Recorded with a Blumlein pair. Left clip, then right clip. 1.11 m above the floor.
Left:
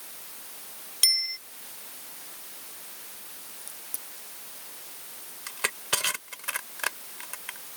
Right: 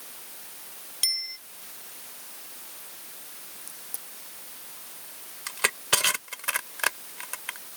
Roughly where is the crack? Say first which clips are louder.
Even; ahead.